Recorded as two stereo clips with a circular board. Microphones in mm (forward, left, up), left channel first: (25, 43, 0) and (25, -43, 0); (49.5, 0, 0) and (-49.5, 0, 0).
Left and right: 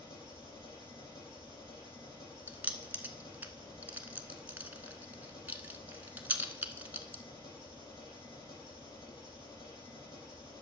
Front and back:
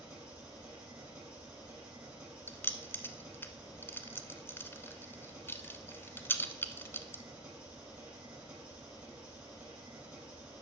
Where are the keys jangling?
40° right, 0.9 m.